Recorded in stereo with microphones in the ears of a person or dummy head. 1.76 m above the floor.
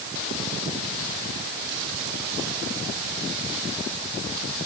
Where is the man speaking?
I don't hear a man speaking.